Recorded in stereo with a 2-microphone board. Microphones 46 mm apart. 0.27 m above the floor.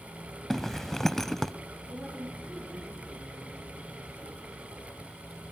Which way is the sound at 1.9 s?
40° right (ahead or behind).